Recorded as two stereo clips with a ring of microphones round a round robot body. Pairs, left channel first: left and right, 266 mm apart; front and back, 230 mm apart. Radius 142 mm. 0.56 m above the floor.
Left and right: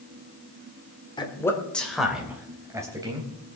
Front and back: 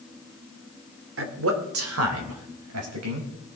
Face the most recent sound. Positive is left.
turn(degrees=-165)